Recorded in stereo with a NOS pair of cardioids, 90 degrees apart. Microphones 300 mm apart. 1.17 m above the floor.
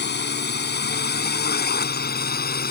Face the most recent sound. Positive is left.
turn(degrees=30)